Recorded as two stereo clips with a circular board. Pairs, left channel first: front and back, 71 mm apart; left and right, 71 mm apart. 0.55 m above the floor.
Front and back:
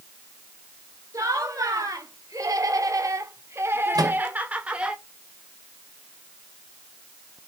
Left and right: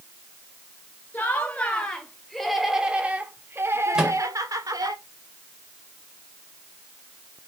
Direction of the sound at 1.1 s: 155° left.